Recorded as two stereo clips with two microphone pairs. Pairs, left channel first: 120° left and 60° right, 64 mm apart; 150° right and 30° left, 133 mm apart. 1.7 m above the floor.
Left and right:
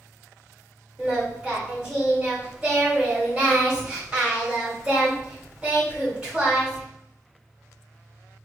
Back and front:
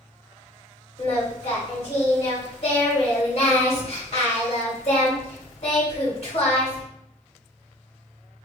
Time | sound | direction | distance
1.0 | singing | 135° right | 2 m